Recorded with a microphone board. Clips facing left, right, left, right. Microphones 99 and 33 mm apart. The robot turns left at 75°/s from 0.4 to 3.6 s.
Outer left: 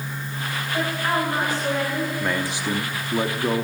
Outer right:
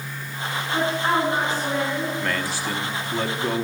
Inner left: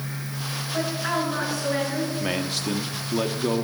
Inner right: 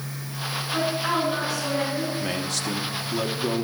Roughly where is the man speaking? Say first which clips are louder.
Outer left 1 dB, inner left 1 dB; centre.